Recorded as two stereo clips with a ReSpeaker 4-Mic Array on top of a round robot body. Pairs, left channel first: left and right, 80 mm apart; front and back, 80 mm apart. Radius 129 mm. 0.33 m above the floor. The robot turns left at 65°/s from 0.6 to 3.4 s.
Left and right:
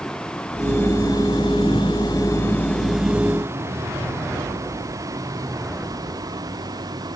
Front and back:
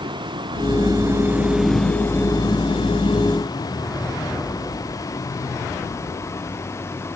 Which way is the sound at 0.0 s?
170° left.